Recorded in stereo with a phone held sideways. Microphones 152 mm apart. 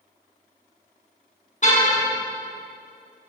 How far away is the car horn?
About 7.5 m.